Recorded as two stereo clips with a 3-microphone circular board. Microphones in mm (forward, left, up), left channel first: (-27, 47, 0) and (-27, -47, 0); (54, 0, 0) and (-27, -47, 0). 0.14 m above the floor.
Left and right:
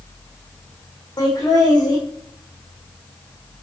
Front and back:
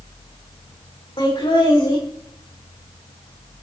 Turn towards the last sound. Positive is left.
turn(degrees=45)